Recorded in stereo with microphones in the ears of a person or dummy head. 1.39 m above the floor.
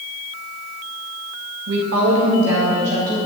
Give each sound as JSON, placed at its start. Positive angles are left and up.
{"t": 1.7, "sound": "a woman speaking", "side_deg": -75, "distance_m": 1.5}